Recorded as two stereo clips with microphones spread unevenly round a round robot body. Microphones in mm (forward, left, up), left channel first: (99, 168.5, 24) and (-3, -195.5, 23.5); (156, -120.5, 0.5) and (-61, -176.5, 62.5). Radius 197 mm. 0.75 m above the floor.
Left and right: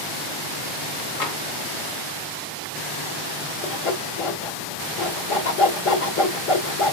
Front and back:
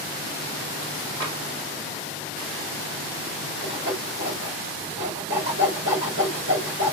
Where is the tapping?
75° left, 1.6 m.